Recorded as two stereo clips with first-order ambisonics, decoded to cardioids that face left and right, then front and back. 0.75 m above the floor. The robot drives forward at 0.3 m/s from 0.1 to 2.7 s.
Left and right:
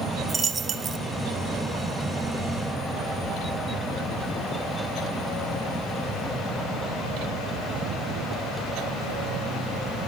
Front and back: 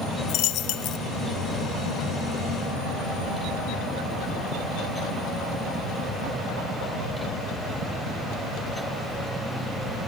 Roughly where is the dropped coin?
Ahead.